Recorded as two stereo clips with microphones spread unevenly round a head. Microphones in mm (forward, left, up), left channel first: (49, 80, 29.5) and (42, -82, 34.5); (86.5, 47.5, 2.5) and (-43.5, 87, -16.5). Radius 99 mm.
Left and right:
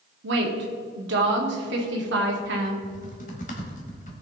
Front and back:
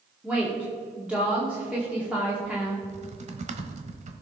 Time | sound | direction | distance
0.2 | a woman speaking | 115° right | 1.9 m
2.8 | typing on a keyboard | 135° left | 1.2 m